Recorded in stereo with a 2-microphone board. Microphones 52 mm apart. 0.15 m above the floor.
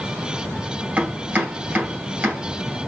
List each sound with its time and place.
1.0 s chopping: 25° right (ahead or behind), 2.5 m